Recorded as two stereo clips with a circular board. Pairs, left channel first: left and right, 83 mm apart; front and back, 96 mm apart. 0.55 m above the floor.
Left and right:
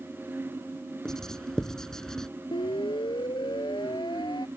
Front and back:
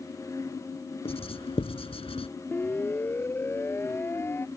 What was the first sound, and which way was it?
Writing, 5° left.